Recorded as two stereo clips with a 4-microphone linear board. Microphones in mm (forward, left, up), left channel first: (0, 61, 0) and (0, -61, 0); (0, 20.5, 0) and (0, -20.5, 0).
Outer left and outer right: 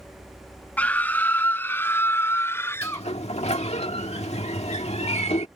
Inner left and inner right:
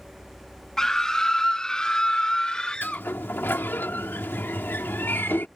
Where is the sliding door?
70° left (ahead or behind).